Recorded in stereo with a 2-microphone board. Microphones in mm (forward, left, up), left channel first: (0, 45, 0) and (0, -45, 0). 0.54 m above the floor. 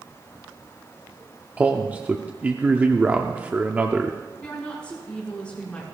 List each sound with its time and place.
1.6 s a man speaking: 20° right (ahead or behind), 0.8 m
4.4 s a woman speaking: 10° left (ahead or behind), 4.5 m